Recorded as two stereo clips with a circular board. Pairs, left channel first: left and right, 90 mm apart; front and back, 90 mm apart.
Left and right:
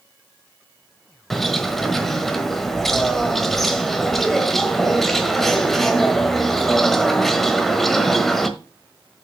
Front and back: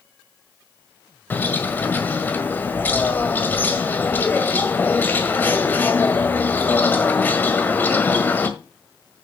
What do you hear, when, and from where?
1.3 s a bird: 10° left, 1.5 m